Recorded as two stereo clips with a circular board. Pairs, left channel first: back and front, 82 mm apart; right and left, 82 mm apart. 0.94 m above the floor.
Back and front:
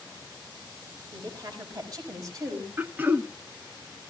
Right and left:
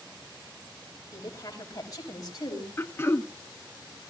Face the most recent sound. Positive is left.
turn(degrees=-50)